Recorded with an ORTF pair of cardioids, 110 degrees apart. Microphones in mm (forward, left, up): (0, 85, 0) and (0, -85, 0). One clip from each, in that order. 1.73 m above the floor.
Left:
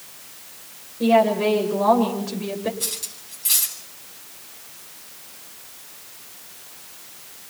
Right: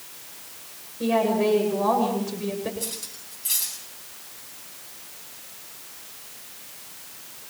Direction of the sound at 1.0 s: 20° left.